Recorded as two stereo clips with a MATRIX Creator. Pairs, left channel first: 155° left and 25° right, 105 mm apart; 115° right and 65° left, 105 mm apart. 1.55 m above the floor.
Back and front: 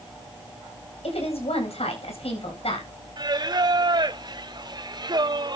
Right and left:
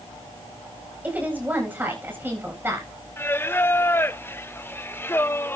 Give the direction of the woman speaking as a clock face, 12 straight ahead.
7 o'clock.